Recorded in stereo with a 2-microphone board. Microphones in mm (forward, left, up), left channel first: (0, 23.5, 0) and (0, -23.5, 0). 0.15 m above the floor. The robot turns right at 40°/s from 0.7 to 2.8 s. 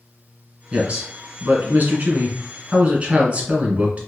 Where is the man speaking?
135° right, 1.3 m; by 4.0 s 50° right, 1.3 m.